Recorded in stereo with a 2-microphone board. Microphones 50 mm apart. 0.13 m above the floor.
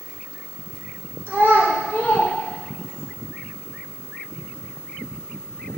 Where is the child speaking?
50° right (ahead or behind), 1.3 m; by 3.1 s 20° right (ahead or behind), 2.5 m.